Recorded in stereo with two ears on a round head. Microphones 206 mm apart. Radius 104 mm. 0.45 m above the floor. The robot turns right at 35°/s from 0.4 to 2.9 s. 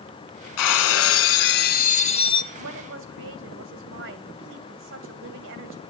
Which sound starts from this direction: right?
A woman speaking, at 2.5 s.